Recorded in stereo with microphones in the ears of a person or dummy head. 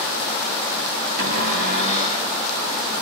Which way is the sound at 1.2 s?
45° right (ahead or behind).